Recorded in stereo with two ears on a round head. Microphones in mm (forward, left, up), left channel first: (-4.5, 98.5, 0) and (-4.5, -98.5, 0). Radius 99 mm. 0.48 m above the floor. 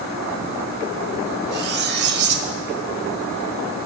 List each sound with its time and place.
1.5 s cutlery clinking: 50° right (ahead or behind), 0.7 m